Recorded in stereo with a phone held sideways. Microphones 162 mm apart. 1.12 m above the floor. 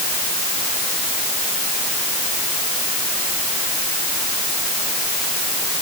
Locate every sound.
Only background noise.